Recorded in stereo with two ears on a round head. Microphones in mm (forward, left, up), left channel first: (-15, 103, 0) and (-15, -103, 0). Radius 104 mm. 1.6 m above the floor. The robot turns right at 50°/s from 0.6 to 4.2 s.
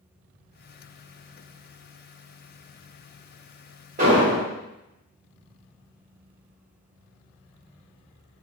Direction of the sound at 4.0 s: 35° right (ahead or behind).